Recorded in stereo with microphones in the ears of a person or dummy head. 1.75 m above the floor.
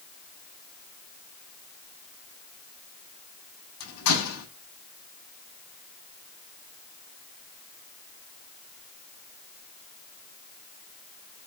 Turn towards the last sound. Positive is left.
turn(degrees=85)